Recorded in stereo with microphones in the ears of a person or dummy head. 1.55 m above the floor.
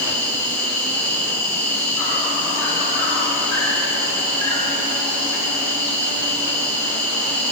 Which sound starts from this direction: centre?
An insect, at 0.0 s.